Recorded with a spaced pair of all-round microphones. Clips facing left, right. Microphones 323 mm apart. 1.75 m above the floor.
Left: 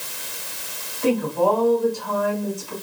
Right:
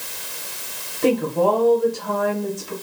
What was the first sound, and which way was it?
A woman speaking, 85° right.